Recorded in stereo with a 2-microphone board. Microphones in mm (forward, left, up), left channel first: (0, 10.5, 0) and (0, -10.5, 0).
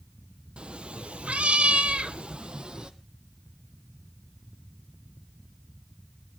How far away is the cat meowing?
About 1.0 m.